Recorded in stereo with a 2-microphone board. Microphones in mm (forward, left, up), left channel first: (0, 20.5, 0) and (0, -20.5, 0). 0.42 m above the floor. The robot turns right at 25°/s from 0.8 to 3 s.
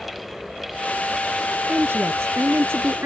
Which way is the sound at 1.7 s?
110° right.